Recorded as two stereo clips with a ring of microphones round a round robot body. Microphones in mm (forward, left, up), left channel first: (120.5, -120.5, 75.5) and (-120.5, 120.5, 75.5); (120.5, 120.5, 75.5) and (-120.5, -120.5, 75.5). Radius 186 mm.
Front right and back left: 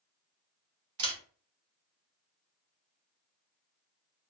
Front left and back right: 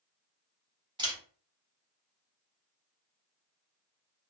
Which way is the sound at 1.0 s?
155° left.